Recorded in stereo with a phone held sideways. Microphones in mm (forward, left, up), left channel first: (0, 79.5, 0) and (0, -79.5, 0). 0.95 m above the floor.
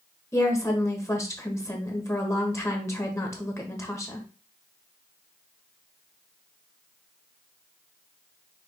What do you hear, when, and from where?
0.3 s a woman speaking: 20° left (ahead or behind), 1.0 m